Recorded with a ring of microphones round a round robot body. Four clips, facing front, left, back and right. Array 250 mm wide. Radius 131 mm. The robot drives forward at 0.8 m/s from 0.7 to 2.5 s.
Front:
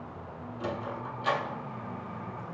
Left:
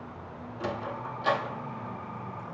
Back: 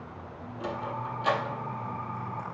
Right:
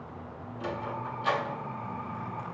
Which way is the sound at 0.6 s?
90° left.